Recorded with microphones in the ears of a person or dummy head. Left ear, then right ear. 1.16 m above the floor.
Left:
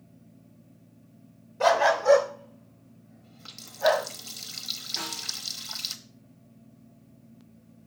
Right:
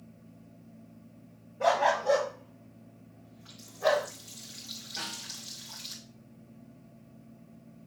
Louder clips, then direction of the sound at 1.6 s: Left 4 dB; 65° left (ahead or behind).